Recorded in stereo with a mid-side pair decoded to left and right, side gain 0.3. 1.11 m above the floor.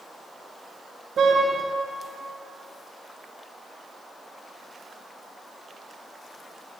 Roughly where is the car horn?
Right.